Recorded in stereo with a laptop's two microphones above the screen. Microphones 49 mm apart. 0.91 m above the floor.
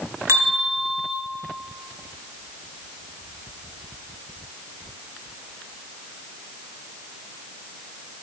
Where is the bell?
75° right (ahead or behind), 2.0 m.